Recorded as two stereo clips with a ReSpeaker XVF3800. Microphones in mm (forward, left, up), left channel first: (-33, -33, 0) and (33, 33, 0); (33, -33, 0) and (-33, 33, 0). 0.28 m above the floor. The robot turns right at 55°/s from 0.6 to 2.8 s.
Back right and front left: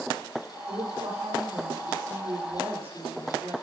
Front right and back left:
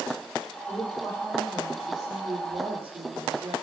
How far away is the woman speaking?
About 8 m.